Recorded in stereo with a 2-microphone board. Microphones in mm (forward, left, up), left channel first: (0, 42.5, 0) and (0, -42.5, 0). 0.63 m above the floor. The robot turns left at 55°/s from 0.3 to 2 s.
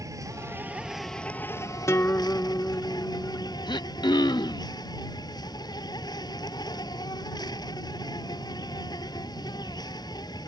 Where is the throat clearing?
60° left (ahead or behind).